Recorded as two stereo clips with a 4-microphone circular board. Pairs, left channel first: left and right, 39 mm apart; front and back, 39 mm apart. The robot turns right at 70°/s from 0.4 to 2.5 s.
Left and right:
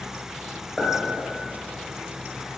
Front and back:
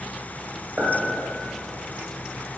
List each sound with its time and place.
0.8 s a clink: 165° left, 0.8 m; by 0.9 s 175° left, 0.8 m